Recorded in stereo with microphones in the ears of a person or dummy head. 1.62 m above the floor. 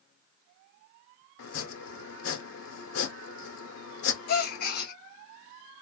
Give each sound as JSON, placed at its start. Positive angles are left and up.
{"t": 1.4, "sound": "chopping", "side_deg": 80, "distance_m": 1.1}
{"t": 4.3, "sound": "a gasp", "side_deg": 40, "distance_m": 0.5}